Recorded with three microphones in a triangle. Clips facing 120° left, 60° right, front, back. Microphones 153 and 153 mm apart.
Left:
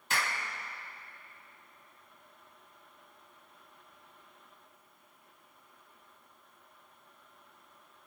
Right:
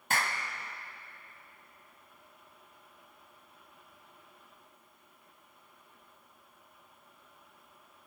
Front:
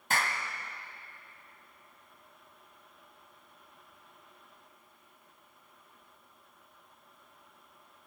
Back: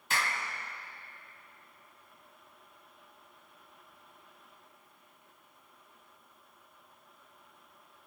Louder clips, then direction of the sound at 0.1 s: Right 2 dB, front 2 dB; 30° right.